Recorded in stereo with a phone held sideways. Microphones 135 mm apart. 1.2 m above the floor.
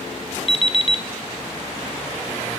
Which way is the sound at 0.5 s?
45° left (ahead or behind).